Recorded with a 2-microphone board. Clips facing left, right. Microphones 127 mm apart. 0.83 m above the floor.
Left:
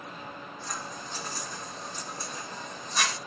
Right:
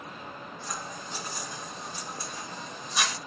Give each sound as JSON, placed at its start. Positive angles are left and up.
{"t": 0.6, "sound": "scissors", "side_deg": -5, "distance_m": 1.6}